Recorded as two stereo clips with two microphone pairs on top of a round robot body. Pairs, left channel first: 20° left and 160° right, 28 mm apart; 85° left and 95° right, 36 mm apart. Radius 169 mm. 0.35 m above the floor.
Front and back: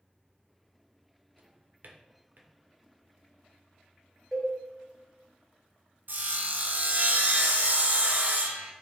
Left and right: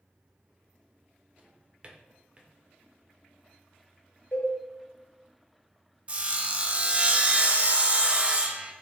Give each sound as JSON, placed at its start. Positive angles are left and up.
{"t": 1.4, "sound": "a drawer", "azimuth_deg": -155, "distance_m": 0.6}
{"t": 4.3, "sound": "a cowbell", "azimuth_deg": 95, "distance_m": 1.4}
{"t": 6.1, "sound": "sawing", "azimuth_deg": -150, "distance_m": 0.6}